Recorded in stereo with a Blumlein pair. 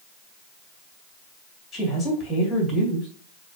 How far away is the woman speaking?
About 3 m.